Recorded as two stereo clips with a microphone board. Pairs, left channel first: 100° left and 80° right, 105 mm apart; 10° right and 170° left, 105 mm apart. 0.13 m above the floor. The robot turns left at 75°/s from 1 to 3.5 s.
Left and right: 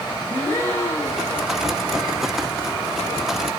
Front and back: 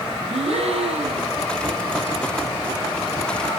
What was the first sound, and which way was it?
A gasp, 170° left.